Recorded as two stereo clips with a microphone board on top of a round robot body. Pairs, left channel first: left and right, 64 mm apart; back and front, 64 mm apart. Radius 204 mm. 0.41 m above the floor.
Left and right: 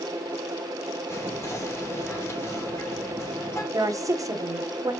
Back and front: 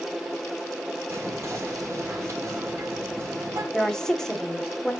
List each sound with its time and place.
1.1 s whispering: 40° left, 4 m
3.7 s a woman speaking: 100° right, 1.7 m